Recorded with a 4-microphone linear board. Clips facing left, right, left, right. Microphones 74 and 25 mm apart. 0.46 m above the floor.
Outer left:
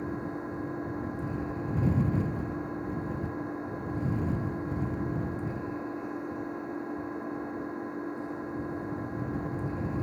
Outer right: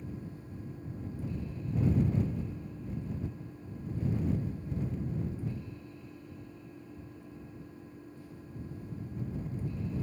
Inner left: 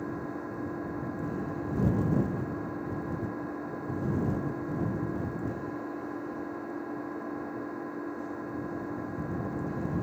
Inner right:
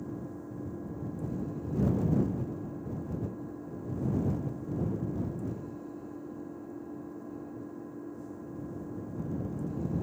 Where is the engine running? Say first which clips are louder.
Outer left 10 dB, inner left 5 dB; 85° left.